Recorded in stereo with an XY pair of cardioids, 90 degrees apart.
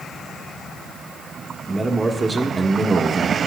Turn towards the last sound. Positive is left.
turn(degrees=-35)